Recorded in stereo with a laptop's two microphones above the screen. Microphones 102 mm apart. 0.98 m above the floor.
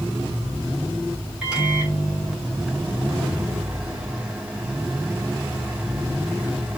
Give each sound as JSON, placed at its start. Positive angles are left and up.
{"t": 1.4, "sound": "a microwave", "side_deg": -10, "distance_m": 2.5}